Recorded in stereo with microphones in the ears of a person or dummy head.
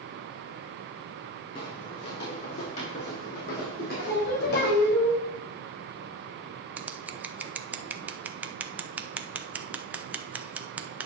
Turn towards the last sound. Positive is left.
turn(degrees=-10)  # may be behind; listen again after turning